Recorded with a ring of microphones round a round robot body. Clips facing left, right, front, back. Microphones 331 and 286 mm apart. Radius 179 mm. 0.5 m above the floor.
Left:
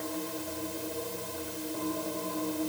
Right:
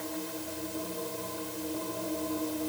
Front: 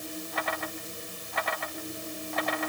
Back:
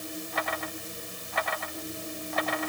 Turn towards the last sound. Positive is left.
No sound to turn to.